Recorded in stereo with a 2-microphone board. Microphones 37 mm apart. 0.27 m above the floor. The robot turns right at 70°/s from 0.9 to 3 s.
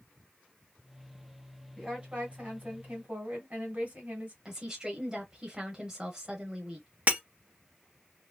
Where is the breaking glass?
45° right (ahead or behind), 0.8 m.